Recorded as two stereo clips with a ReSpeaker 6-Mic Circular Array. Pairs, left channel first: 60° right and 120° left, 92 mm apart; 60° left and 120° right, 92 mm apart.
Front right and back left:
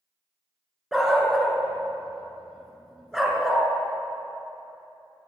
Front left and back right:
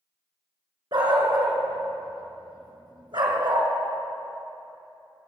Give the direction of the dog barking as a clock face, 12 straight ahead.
5 o'clock.